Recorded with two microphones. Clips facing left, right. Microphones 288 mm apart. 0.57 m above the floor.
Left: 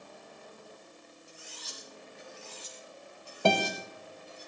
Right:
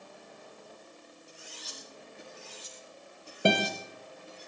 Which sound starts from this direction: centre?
A guitar, at 3.5 s.